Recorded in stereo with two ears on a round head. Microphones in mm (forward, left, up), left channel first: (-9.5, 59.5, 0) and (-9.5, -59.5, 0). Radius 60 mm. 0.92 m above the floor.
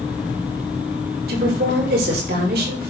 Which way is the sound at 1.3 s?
80° right.